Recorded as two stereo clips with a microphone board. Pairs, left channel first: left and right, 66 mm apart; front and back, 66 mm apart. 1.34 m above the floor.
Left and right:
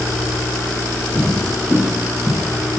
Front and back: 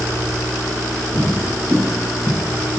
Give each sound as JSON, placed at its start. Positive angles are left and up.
{"t": 1.1, "sound": "footsteps", "azimuth_deg": 40, "distance_m": 2.0}